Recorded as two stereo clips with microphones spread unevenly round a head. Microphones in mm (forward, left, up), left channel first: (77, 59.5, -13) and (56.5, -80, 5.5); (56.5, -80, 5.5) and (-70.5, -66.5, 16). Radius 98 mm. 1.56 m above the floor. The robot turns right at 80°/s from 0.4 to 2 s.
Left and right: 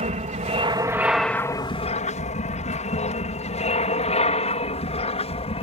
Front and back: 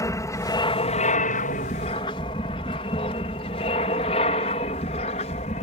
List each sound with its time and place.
0.0 s an aircraft: 65° right; by 5.6 s 40° left